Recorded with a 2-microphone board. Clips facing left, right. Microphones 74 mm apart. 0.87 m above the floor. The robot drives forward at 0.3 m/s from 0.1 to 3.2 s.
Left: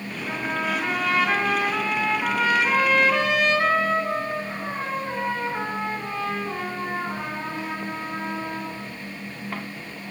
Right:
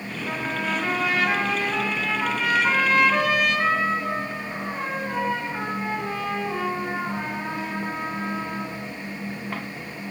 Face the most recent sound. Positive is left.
turn(degrees=-5)  # may be behind; listen again after turning